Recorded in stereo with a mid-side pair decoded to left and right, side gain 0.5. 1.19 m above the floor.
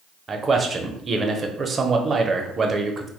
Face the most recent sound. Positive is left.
turn(degrees=-35)